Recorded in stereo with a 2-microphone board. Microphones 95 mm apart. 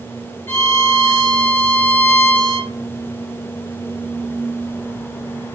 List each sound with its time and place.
0.5 s a violin: 30° left (ahead or behind), 2 m